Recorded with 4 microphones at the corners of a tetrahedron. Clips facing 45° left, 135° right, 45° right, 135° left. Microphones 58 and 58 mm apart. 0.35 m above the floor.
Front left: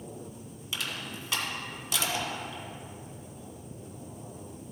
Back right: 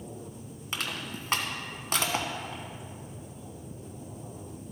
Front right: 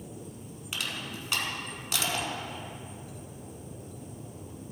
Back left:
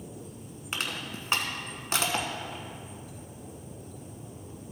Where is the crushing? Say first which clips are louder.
Back right 1 dB, back left 2 dB; 175° right, 1.2 m.